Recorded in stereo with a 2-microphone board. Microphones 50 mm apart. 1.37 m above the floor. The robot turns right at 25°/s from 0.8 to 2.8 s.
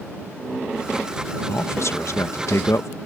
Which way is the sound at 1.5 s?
60° left.